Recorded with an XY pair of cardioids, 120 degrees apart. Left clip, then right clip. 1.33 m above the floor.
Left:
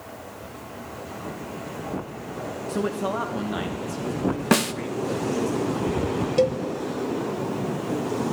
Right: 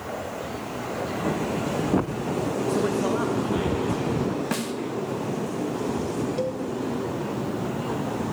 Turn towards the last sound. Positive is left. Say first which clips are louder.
# left 11 dB
turn(degrees=60)